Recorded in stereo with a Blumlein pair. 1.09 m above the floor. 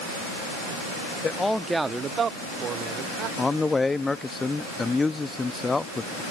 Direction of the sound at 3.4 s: 10° left.